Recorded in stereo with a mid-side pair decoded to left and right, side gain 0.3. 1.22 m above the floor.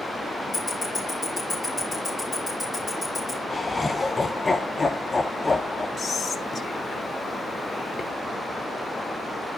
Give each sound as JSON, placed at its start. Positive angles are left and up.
{"t": 0.5, "sound": "ticking", "azimuth_deg": 40, "distance_m": 5.0}
{"t": 3.5, "sound": "laughter", "azimuth_deg": 35, "distance_m": 0.8}
{"t": 6.0, "sound": "whispering", "azimuth_deg": 55, "distance_m": 0.9}